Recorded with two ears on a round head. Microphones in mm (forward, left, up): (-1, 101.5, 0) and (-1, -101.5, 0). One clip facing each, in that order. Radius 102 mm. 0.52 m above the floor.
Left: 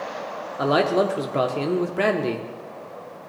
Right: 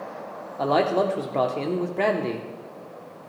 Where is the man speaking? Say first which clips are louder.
Left 2 dB; 15° left (ahead or behind), 0.7 m.